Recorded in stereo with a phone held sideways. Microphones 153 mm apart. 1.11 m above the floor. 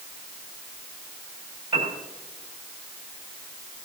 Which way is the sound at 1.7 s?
50° right (ahead or behind).